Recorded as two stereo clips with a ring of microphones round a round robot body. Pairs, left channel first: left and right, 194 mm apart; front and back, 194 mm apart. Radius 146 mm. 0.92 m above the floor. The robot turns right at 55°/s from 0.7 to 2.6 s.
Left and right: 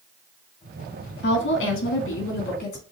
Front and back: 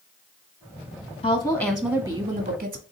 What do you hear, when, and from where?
1.2 s a woman speaking: 65° left, 1.6 m; by 2.8 s 140° left, 1.6 m